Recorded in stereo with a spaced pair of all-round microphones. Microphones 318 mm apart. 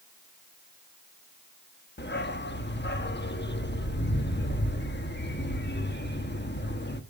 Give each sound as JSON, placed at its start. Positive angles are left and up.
{"t": 2.0, "sound": "a dog barking", "side_deg": 30, "distance_m": 1.2}